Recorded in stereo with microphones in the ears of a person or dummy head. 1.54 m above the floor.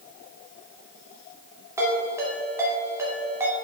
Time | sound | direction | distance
1.8 | a ringtone | 15° right (ahead or behind) | 2.5 m